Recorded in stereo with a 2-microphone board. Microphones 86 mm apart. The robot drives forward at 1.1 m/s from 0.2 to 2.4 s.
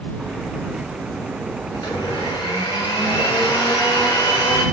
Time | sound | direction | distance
1.7 | a blender | 65° left (ahead or behind) | 4.5 m